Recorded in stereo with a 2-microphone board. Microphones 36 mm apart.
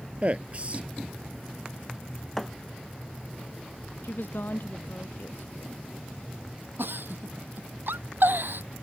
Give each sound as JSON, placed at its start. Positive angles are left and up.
{"t": 0.2, "sound": "a man speaking", "side_deg": -40}
{"t": 2.4, "sound": "a thud", "side_deg": 5}
{"t": 4.0, "sound": "a woman speaking", "side_deg": 75}
{"t": 6.8, "sound": "a giggle", "side_deg": -75}